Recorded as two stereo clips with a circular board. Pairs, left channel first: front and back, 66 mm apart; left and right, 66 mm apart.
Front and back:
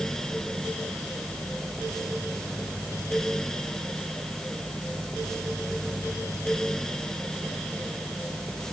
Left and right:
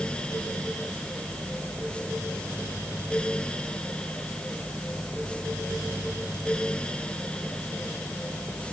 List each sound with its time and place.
Only background noise.